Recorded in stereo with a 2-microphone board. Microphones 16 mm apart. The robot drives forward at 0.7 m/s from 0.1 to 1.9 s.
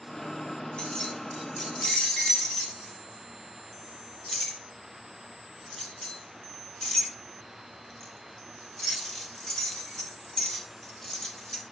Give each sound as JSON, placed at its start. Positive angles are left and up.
{"t": 0.8, "sound": "keys jangling", "side_deg": 60, "distance_m": 1.2}